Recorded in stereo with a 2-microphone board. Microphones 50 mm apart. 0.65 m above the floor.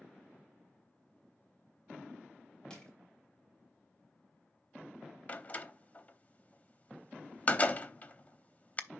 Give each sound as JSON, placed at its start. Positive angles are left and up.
{"t": 2.7, "sound": "crushing", "side_deg": 15, "distance_m": 2.0}
{"t": 5.3, "sound": "a door slam", "side_deg": 35, "distance_m": 0.6}